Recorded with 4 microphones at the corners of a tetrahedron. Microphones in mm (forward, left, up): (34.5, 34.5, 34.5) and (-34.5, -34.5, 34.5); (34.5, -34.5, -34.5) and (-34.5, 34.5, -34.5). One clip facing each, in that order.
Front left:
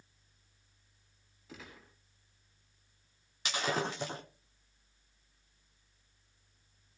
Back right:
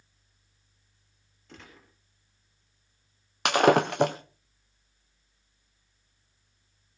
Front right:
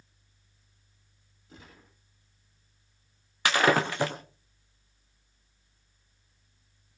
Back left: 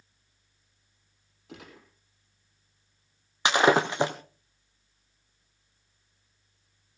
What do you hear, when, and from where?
1.5 s a gunshot: 130° left, 5.5 m
3.5 s breaking glass: 155° right, 2.5 m